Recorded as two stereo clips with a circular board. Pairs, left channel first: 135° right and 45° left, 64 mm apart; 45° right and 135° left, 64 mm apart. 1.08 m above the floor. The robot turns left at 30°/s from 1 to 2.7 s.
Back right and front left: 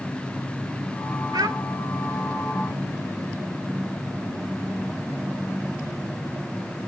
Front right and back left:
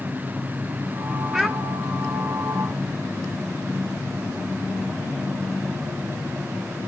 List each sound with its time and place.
1.3 s a child speaking: 50° left, 0.6 m; by 1.6 s 40° left, 0.6 m